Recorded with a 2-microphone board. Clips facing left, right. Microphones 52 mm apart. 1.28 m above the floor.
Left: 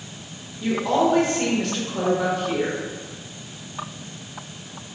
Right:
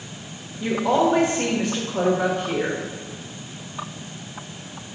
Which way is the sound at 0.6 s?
20° right (ahead or behind).